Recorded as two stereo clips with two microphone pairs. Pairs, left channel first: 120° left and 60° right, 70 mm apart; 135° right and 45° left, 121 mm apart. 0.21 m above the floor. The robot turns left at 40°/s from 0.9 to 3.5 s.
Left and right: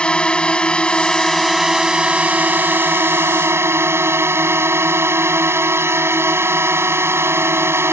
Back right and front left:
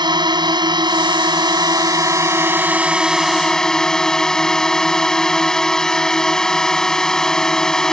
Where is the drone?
55° left; by 7.9 s 50° right.